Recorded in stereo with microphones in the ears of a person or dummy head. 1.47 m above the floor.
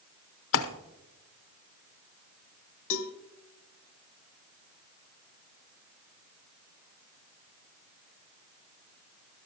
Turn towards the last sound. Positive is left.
turn(degrees=85)